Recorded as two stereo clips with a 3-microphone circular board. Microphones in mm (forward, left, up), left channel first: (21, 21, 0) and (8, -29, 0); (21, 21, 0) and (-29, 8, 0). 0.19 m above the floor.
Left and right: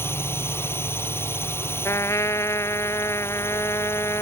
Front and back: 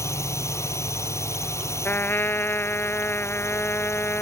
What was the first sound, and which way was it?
A drone, 35° left.